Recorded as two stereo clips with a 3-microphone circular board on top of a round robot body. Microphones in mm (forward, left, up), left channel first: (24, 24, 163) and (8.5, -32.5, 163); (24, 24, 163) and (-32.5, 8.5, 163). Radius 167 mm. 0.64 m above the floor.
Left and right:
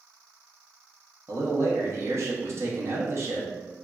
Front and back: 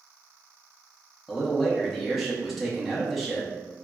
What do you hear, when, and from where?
1.3 s a man speaking: 75° right, 1.1 m